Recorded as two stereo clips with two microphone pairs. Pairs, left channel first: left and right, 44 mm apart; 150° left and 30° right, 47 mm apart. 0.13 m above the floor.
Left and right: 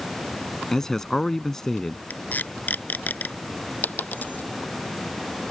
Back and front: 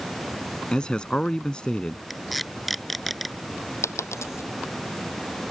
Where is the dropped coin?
140° left.